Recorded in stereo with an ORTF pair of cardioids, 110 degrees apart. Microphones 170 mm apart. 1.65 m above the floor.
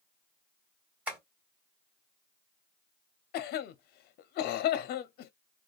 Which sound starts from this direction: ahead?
Tapping, at 1.1 s.